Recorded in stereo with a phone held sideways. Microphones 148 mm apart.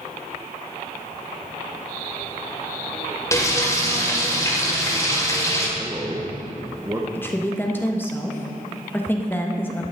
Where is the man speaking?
20° right (ahead or behind), 0.9 m.